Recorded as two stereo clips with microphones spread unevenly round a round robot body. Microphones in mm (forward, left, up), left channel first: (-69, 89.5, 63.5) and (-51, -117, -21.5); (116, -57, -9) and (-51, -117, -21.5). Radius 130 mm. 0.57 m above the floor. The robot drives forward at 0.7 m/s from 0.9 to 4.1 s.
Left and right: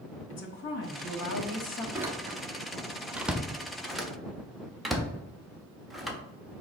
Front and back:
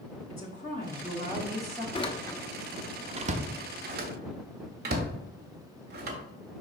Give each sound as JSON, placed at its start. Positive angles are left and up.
{"t": 0.3, "sound": "a woman speaking", "azimuth_deg": 60, "distance_m": 1.2}
{"t": 1.9, "sound": "a door slam", "azimuth_deg": -30, "distance_m": 0.8}